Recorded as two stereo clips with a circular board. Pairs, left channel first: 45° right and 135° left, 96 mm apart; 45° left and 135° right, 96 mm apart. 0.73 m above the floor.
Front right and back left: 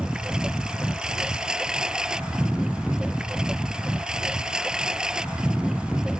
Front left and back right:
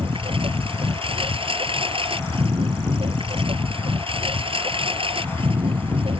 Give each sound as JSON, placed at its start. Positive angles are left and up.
{"t": 0.0, "sound": "a lawn mower", "azimuth_deg": -145}